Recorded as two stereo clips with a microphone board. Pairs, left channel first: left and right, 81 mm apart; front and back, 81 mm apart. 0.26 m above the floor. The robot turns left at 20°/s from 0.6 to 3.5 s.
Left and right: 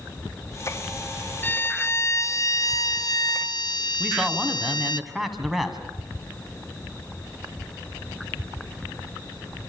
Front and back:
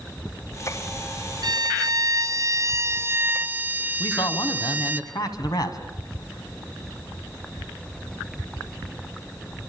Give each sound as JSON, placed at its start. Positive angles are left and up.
{"t": 1.4, "sound": "a violin", "azimuth_deg": 155, "distance_m": 0.9}
{"t": 4.0, "sound": "a man speaking", "azimuth_deg": 0, "distance_m": 2.0}